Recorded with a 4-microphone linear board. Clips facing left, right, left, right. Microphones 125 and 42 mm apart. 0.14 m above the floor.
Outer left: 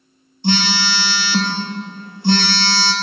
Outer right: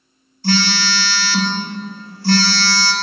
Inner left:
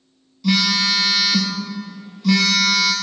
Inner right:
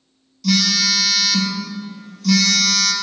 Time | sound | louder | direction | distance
0.4 | a phone buzzing | even, even | 20° left (ahead or behind) | 0.7 m